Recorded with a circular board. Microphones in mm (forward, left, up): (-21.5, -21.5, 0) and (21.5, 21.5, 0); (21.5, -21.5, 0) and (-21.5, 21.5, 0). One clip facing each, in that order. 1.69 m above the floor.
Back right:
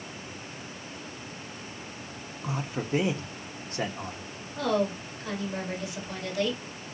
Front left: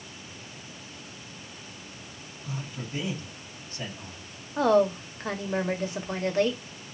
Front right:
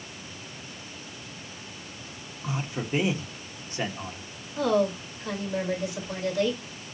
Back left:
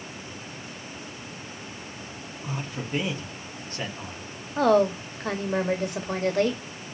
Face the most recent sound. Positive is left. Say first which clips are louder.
# front left 6 dB, back left 4 dB
turn(degrees=95)